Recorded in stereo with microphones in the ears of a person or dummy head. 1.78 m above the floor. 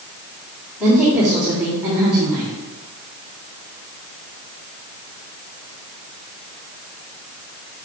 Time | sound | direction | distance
0.8 | a woman speaking | 5° right (ahead or behind) | 3.5 m